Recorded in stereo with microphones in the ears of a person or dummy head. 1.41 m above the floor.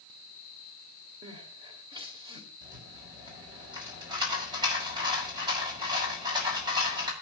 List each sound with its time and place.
1.2 s crying: 25° right (ahead or behind), 2.5 m
2.6 s a rattle: 20° right (ahead or behind), 6 m